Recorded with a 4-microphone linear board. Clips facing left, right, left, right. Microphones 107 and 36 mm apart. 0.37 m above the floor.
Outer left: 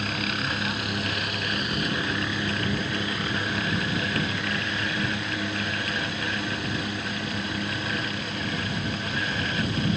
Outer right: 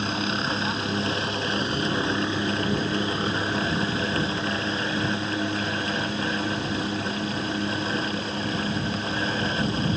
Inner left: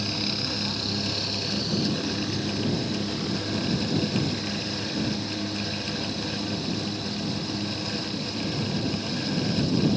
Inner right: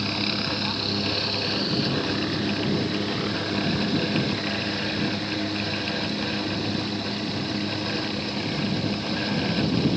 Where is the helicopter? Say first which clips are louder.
Outer right 3 dB, inner right 3 dB; 25° right (ahead or behind); by 10.0 s 35° right (ahead or behind).